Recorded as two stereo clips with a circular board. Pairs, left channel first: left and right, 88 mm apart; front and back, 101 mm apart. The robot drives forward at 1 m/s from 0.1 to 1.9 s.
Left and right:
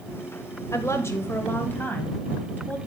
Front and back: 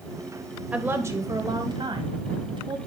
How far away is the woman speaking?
About 1.0 m.